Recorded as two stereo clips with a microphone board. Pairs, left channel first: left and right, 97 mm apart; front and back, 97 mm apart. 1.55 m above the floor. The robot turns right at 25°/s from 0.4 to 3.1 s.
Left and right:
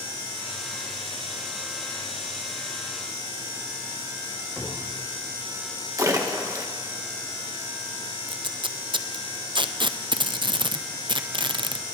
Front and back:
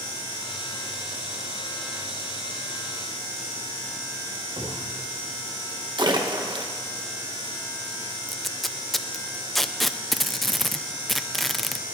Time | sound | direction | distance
4.6 | a cupboard door | 175° right | 3 m
6.0 | a splash | 145° right | 1.2 m
8.3 | tape being pulled | 85° right | 0.5 m